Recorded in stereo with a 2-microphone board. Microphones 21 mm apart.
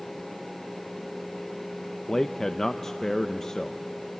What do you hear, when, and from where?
2.1 s a man speaking: 20° left (ahead or behind), 0.6 m